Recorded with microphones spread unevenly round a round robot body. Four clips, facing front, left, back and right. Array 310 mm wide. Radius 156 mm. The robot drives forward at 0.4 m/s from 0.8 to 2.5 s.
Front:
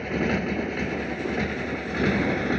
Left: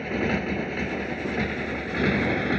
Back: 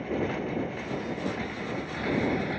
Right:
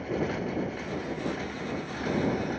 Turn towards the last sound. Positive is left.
turn(degrees=50)